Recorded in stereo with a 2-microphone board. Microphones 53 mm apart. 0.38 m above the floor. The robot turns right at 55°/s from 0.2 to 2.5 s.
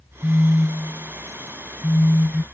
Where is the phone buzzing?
10° left; by 2.4 s 135° left.